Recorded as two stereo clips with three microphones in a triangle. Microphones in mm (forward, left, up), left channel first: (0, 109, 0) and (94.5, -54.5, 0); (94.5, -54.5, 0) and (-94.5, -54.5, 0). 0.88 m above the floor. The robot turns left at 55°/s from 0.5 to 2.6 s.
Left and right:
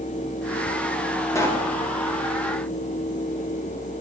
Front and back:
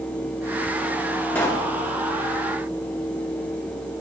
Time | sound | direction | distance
1.4 | a pop | 70° left | 1.0 m